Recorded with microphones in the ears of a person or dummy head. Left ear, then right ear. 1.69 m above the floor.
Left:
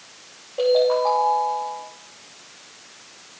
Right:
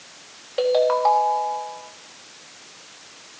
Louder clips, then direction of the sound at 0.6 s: Even; 60° right (ahead or behind).